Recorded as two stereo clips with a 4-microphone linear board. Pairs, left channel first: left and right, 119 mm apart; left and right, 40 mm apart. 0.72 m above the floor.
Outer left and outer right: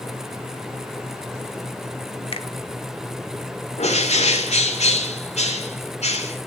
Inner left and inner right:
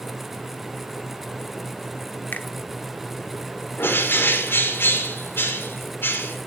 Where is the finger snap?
55° left (ahead or behind), 1.2 m.